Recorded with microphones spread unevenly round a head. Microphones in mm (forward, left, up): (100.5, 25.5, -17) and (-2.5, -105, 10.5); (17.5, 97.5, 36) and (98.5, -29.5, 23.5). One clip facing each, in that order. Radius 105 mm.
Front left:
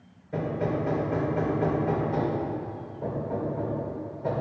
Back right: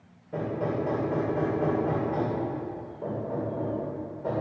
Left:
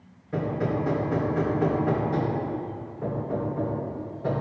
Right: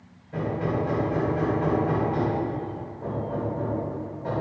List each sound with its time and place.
0.3 s hammering: 135° left, 2.5 m